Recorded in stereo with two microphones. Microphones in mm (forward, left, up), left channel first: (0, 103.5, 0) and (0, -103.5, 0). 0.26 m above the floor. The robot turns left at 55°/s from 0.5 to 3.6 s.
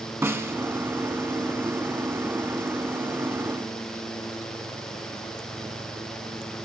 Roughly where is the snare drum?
Centre.